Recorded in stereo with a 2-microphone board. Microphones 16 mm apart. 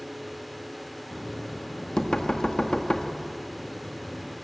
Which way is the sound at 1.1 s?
60° left (ahead or behind).